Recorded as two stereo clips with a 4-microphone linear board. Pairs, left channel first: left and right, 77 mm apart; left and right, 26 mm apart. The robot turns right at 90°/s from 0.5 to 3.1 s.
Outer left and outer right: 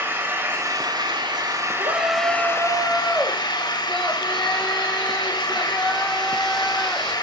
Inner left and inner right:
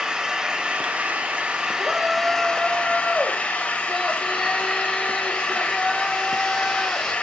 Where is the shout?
110° right, 4.5 m; by 7.1 s 10° left, 4.5 m.